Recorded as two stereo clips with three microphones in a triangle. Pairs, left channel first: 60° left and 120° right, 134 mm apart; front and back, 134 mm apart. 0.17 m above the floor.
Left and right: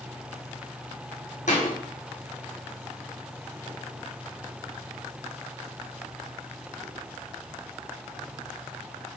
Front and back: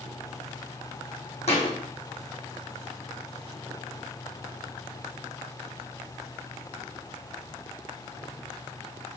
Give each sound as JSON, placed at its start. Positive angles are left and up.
{"t": 1.5, "sound": "a thud", "azimuth_deg": 40, "distance_m": 1.3}